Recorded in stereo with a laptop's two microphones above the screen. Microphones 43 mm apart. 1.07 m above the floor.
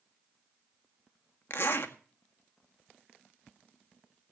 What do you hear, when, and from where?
1.5 s a zipper: 55° left (ahead or behind), 1.7 m